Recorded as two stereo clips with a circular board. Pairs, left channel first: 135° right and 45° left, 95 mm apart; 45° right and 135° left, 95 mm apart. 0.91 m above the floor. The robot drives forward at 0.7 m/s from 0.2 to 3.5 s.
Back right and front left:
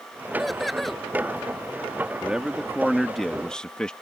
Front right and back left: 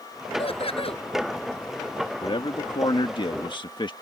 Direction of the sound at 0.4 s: 45° right.